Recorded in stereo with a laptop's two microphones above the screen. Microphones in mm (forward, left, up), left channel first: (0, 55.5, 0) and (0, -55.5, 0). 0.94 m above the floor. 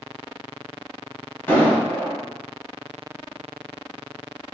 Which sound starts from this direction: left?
An explosion, at 1.5 s.